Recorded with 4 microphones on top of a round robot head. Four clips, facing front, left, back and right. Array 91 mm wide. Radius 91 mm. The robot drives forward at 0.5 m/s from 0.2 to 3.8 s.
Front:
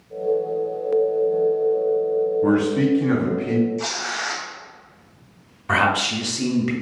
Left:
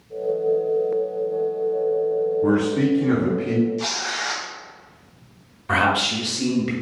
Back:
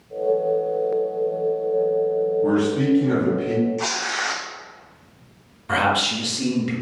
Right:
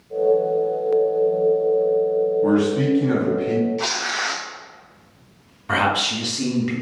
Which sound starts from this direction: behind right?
Tearing paper, at 3.8 s.